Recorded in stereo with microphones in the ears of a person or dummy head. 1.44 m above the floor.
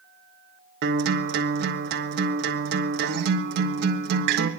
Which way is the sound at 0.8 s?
55° right (ahead or behind).